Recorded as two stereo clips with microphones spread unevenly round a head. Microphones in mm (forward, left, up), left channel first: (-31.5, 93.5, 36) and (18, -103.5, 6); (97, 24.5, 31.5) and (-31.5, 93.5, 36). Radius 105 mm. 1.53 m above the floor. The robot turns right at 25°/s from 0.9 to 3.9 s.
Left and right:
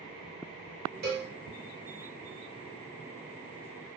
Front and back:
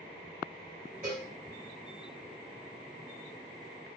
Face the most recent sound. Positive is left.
turn(degrees=-55)